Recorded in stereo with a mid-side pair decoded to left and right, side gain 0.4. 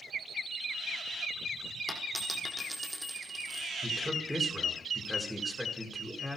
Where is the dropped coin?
5° right, 4.5 m.